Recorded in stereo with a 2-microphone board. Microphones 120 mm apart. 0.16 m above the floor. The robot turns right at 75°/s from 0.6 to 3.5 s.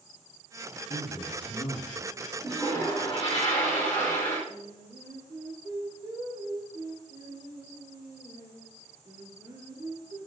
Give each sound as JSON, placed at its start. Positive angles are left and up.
{"t": 0.9, "sound": "a man speaking", "azimuth_deg": 80, "distance_m": 3.0}
{"t": 2.4, "sound": "a toilet flushing", "azimuth_deg": -5, "distance_m": 3.0}
{"t": 4.5, "sound": "singing", "side_deg": -35, "distance_m": 2.0}